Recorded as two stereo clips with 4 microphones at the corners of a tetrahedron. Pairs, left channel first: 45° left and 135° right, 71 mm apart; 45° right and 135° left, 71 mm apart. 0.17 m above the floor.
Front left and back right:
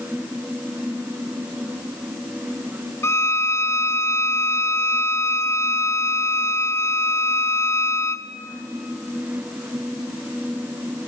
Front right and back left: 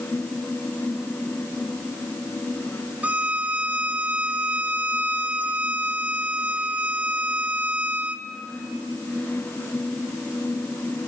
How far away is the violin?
About 0.7 m.